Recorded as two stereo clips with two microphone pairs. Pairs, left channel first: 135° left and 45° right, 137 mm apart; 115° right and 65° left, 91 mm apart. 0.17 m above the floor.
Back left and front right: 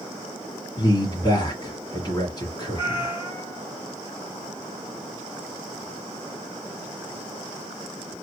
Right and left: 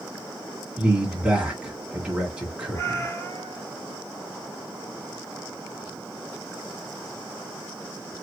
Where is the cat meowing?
170° right, 2 m.